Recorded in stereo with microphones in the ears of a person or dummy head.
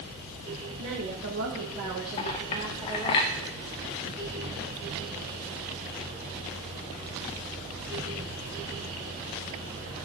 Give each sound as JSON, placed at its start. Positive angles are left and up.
{"t": 0.8, "sound": "a woman speaking", "side_deg": -70, "distance_m": 1.7}
{"t": 2.2, "sound": "a clink", "side_deg": 25, "distance_m": 0.6}